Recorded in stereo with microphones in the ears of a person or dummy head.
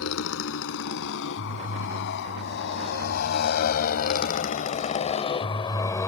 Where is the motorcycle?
75° left (ahead or behind); by 6.1 s 15° left (ahead or behind).